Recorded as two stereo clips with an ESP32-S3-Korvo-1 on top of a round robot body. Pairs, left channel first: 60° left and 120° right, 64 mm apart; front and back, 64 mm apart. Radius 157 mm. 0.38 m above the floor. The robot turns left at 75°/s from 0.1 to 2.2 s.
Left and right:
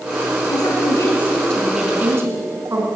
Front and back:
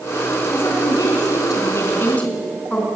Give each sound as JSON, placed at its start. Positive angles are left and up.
{"t": 0.5, "sound": "a woman speaking", "azimuth_deg": 60, "distance_m": 5.0}